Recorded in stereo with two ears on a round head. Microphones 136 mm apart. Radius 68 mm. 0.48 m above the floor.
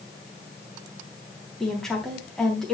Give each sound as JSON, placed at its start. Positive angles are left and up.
{"t": 1.6, "sound": "a woman speaking", "side_deg": 5, "distance_m": 3.5}